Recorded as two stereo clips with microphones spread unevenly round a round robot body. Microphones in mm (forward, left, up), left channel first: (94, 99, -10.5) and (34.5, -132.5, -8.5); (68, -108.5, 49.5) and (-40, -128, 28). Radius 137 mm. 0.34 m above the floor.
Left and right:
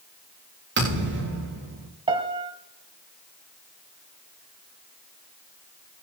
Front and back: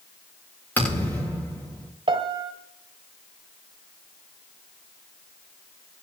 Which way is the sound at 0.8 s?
60° right.